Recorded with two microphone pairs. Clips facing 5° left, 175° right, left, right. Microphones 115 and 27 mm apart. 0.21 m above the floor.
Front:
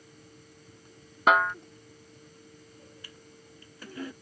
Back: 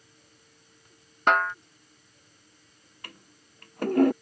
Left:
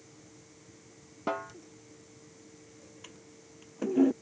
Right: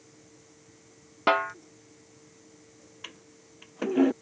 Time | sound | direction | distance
1.3 | a snare drum | 85° right | ?
3.0 | a toilet flushing | 145° right | ?